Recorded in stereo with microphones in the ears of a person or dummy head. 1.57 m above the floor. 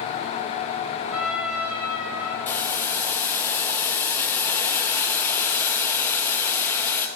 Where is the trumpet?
10° right (ahead or behind), 1.9 m.